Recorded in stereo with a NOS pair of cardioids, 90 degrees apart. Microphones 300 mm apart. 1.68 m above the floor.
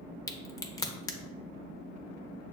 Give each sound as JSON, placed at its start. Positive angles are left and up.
{"t": 0.3, "sound": "a crack", "azimuth_deg": 10, "distance_m": 0.6}